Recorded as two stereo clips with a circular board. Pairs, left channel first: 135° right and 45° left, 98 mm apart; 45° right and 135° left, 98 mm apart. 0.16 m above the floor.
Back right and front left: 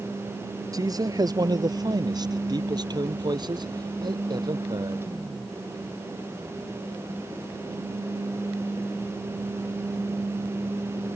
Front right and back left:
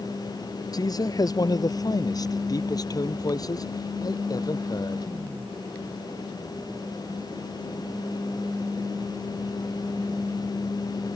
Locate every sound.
0.7 s a man speaking: straight ahead; by 5.0 s 5° left